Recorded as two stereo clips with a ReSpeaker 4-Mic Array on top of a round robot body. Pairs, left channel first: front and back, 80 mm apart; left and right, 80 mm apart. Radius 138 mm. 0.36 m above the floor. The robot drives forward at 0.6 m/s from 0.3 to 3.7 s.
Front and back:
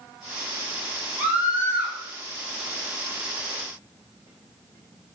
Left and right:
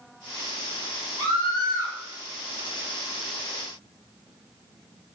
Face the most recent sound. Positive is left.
turn(degrees=-130)